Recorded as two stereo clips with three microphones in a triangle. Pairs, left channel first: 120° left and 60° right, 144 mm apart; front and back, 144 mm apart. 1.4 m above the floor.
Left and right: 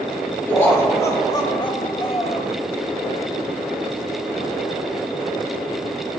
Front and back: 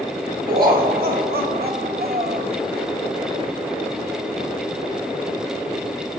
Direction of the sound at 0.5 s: 165° right.